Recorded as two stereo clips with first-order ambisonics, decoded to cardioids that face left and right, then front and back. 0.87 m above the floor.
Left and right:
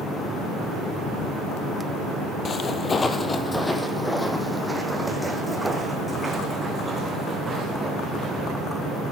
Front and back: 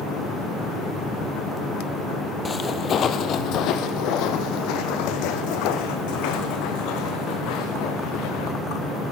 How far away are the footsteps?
About 0.9 m.